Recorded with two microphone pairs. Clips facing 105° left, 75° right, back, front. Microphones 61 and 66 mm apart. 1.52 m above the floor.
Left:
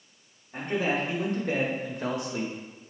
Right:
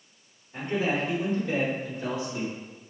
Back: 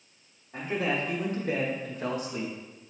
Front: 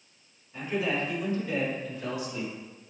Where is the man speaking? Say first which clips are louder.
Even, even; 145° left, 3 m; by 2.5 s 125° left, 1.7 m.